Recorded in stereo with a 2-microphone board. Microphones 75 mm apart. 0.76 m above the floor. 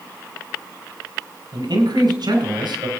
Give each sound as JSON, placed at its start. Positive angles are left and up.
{"t": 1.5, "sound": "a man speaking", "side_deg": -75, "distance_m": 4.5}